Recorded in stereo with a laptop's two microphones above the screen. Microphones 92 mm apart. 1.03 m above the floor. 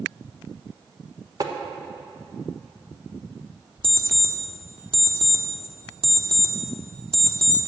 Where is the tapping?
45° right (ahead or behind), 1.0 m.